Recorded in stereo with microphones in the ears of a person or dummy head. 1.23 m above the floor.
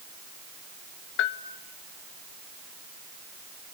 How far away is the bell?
About 0.9 m.